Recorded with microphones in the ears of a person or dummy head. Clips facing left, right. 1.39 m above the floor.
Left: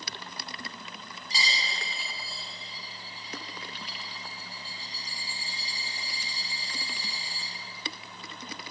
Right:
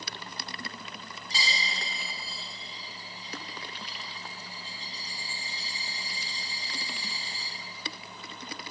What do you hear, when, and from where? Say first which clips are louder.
1.3 s a dropped coin: even; centre (ahead or behind), 1.5 m